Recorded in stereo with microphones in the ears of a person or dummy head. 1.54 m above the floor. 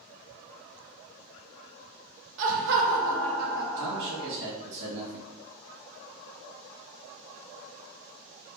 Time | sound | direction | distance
2.4 | laughter | 40° right (ahead or behind) | 0.6 m
3.8 | a man speaking | 70° right (ahead or behind) | 1.9 m